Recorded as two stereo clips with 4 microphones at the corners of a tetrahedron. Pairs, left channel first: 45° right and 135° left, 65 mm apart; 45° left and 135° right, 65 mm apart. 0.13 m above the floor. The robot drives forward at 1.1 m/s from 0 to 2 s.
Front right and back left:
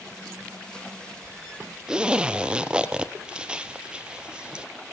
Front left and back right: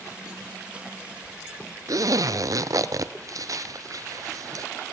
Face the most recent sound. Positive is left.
turn(degrees=-150)